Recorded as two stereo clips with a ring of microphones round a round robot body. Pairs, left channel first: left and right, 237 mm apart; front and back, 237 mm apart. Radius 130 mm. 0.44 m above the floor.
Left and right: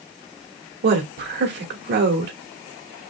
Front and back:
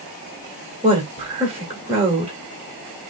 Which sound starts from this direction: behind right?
A woman speaking, at 0.8 s.